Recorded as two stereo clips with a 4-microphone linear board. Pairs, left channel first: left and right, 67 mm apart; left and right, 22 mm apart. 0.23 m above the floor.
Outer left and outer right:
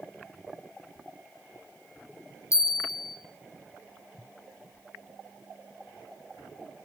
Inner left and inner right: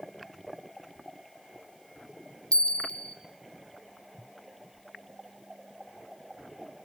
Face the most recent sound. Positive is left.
turn(degrees=50)  # may be behind; listen again after turning